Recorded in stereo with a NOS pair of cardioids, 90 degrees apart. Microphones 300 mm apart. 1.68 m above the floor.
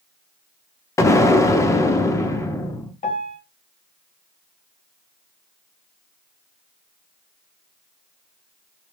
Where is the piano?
25° left, 0.9 m.